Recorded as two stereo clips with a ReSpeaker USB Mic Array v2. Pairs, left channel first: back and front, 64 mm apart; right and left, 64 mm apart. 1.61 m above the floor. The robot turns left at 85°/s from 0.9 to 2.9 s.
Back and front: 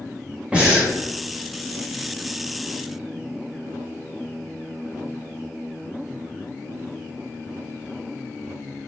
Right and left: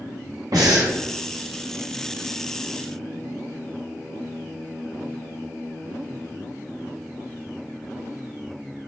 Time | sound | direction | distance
0.5 | breathing | 75° left | 0.9 m